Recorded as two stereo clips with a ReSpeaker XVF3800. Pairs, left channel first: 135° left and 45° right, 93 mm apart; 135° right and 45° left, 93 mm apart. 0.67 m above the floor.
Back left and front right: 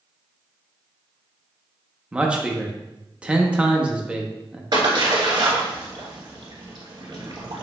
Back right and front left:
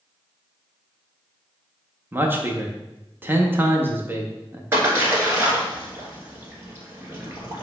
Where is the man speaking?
15° left, 0.5 m.